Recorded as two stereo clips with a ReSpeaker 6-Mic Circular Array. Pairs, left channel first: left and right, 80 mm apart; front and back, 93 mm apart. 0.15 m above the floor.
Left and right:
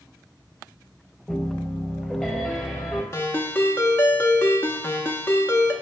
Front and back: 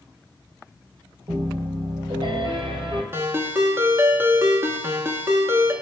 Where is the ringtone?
135° left, 0.6 m.